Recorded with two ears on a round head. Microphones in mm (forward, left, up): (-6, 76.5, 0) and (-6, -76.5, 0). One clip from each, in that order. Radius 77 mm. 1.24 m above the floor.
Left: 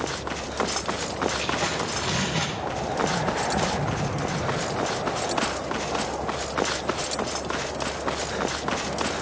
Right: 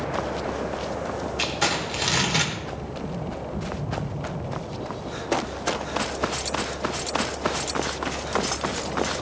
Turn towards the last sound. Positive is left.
turn(degrees=-75)  # may be behind; listen again after turning